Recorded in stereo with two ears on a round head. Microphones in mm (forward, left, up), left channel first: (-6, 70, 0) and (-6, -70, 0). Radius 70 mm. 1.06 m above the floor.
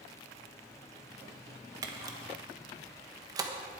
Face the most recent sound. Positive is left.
turn(degrees=-25)  # may be behind; listen again after turning